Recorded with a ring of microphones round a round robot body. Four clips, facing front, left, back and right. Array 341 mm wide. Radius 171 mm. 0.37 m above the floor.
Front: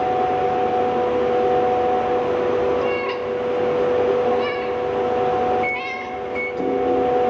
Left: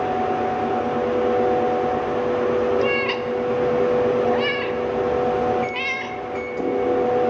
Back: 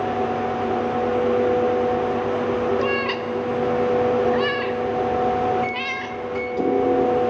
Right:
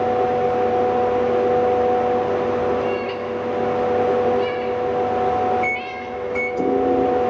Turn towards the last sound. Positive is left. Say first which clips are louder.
# right 1 dB, front 1 dB
turn(degrees=-125)